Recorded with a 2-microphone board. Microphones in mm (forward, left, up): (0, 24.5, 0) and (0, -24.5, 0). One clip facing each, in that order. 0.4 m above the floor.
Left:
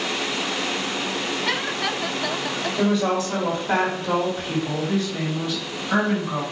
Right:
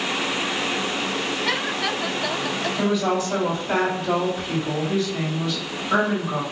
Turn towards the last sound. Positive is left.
turn(degrees=15)  # may be behind; listen again after turning